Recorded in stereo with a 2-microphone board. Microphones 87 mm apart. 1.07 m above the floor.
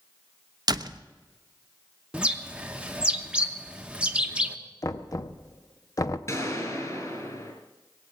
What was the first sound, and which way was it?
A door slam, 50° right (ahead or behind).